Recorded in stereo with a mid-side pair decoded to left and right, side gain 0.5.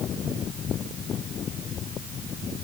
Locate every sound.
Only background noise.